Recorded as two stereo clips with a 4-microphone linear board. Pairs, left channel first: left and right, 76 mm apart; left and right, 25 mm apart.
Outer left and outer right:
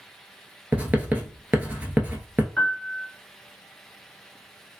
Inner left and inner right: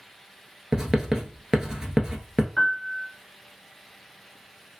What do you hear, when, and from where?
0.7 s writing: 20° right (ahead or behind), 0.7 m
2.6 s a piano: 15° left (ahead or behind), 0.8 m